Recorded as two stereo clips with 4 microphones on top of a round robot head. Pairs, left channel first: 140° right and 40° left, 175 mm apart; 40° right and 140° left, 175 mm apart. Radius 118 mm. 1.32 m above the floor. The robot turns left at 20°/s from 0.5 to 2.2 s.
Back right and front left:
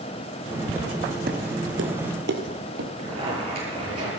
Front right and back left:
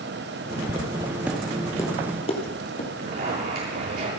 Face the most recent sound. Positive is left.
turn(degrees=100)